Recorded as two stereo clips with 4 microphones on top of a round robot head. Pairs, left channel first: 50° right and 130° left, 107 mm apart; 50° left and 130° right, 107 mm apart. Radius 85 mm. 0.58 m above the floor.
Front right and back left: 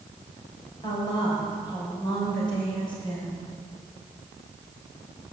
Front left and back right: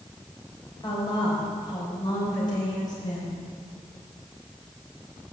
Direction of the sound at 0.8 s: Straight ahead.